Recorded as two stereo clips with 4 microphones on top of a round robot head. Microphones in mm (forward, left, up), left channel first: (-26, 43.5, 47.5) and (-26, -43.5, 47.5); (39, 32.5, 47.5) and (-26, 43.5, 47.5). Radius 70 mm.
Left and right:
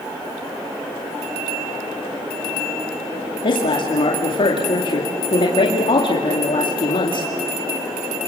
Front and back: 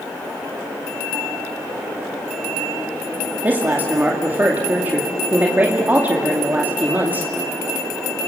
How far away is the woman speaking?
About 2.5 m.